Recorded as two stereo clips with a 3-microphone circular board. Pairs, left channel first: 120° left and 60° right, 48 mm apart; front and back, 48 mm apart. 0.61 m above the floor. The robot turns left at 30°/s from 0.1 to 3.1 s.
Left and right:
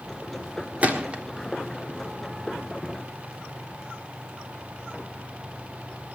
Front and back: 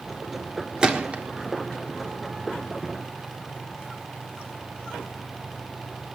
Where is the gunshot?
110° right, 1.5 m; by 1.2 s 125° right, 1.5 m.